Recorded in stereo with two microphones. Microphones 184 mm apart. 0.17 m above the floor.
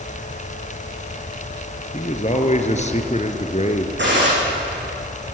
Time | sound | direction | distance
1.9 | a man speaking | 40° left (ahead or behind) | 2.5 m
4.0 | a gunshot | 80° right | 7.5 m